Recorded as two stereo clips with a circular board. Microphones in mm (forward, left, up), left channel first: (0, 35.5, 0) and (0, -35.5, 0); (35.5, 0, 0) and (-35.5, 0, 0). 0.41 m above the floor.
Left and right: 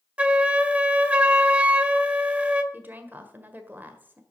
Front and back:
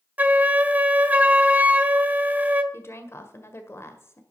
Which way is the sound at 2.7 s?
35° right.